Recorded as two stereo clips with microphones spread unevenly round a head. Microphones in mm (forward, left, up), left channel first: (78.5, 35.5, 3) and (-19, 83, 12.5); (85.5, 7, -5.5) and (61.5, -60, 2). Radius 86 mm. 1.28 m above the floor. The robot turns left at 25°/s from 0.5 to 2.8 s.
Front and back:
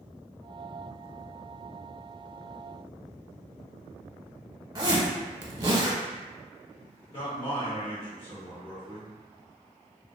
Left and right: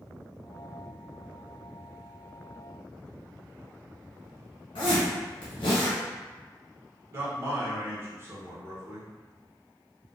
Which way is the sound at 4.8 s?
100° left.